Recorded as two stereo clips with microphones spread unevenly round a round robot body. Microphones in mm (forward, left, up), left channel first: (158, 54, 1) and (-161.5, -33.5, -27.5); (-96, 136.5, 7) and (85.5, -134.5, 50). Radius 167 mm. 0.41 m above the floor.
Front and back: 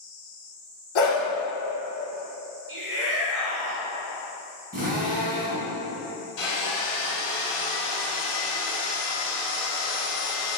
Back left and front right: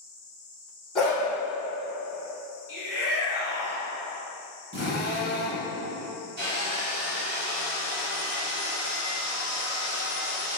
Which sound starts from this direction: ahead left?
A dog barking, at 0.9 s.